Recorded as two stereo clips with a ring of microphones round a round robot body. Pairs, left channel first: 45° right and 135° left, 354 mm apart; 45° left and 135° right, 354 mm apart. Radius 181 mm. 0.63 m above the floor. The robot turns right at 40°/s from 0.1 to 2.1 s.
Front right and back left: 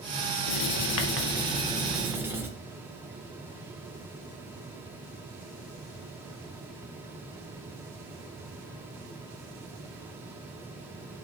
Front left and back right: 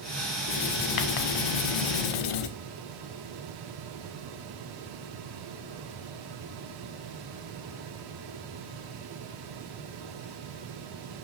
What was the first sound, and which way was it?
Writing, 15° right.